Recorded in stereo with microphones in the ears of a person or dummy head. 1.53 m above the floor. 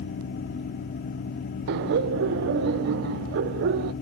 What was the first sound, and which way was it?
Laughter, 65° right (ahead or behind).